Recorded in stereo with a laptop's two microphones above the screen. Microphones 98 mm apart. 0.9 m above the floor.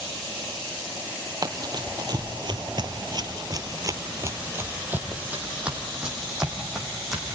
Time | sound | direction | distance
1.4 | running footsteps | 40° right (ahead or behind) | 1.7 m